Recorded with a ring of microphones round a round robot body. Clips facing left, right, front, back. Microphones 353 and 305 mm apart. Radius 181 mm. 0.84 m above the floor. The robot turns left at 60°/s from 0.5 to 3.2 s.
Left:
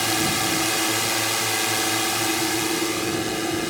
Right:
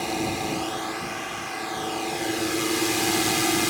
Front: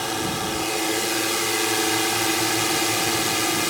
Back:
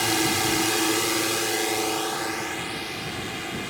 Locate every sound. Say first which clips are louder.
0.0 s a drone: left 2 dB, back 2 dB; 135° left; by 3.7 s 25° right